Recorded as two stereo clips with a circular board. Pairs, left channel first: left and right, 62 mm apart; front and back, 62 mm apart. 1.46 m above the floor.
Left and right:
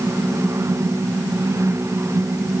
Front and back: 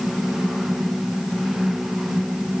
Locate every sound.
Only background noise.